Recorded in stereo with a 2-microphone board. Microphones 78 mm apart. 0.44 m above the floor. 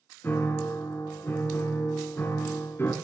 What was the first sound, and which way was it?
A piano, 30° left (ahead or behind).